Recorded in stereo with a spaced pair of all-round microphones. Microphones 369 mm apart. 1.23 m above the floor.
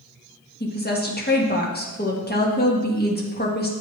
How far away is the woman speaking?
About 1.5 m.